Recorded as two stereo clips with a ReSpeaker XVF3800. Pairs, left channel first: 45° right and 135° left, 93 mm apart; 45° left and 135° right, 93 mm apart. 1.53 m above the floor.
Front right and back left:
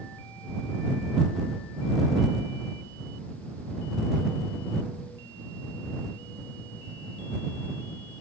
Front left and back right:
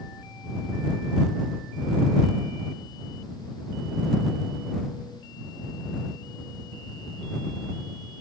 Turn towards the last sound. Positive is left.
No sound to turn to.